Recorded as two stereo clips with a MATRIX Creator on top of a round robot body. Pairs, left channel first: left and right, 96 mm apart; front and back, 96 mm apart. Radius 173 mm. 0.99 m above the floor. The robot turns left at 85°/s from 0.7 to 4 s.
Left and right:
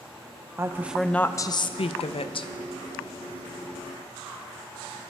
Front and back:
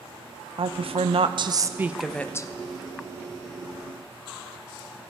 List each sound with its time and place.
0.6 s a woman speaking: 155° right, 0.8 m; by 2.5 s 50° left, 0.8 m